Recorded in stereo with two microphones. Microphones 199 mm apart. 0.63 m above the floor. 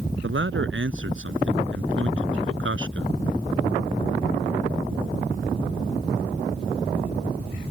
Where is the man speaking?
85° right.